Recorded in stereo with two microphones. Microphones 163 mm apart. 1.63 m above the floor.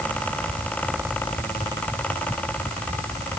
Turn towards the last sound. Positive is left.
No sound to turn to.